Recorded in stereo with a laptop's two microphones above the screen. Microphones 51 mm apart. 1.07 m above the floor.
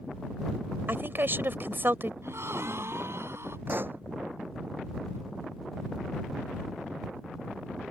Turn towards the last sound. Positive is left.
turn(degrees=-45)  # may be behind; listen again after turning